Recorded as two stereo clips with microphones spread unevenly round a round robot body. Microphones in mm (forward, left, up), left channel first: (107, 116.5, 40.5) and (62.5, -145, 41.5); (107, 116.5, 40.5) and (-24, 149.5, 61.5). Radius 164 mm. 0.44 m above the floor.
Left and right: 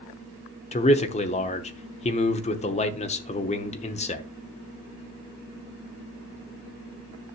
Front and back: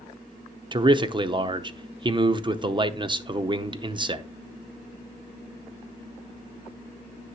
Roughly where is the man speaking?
Behind left.